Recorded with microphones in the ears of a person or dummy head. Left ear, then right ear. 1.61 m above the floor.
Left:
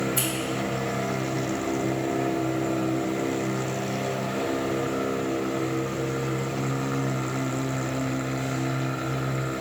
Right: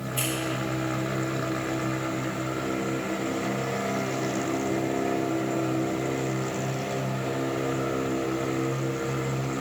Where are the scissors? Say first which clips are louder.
Left 2 dB; 25° left (ahead or behind), 3 m.